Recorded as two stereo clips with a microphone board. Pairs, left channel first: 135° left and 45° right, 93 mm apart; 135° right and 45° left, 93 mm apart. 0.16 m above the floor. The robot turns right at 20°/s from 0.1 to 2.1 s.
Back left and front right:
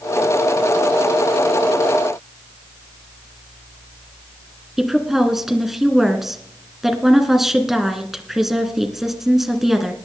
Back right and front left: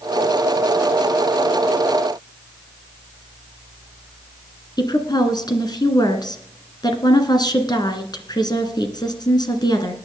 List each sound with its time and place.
4.8 s a woman speaking: 130° right, 2 m